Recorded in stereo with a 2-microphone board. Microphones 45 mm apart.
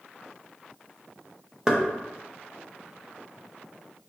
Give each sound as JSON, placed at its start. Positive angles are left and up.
{"t": 1.7, "sound": "knocking", "side_deg": -15, "distance_m": 0.7}